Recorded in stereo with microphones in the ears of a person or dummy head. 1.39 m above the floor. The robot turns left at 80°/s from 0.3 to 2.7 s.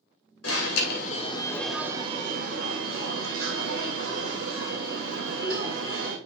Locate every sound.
0.4 s an alarm: 95° left, 2.5 m; by 6.2 s 85° right, 2.5 m